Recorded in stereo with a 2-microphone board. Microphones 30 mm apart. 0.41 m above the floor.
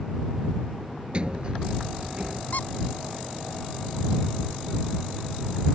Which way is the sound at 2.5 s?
65° left (ahead or behind).